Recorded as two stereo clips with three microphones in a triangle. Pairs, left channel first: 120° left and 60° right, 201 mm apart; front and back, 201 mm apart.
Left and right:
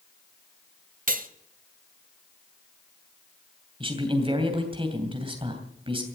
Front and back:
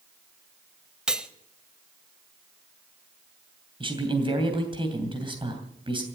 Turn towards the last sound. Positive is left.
turn(degrees=-120)